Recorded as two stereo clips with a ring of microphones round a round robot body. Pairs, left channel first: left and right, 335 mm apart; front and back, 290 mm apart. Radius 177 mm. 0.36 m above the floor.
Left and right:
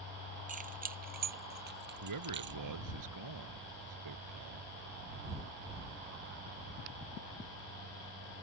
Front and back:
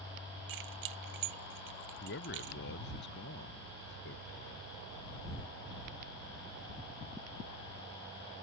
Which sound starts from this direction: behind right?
Keys jangling, at 0.5 s.